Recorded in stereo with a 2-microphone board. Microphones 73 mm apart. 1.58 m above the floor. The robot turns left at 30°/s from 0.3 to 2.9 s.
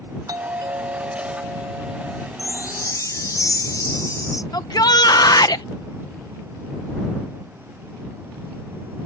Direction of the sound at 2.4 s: 45° left (ahead or behind).